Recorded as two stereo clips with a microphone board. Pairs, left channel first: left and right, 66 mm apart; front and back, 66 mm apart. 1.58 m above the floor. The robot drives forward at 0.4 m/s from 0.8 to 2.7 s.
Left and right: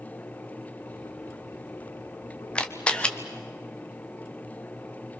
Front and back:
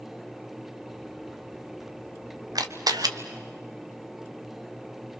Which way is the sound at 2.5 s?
160° left.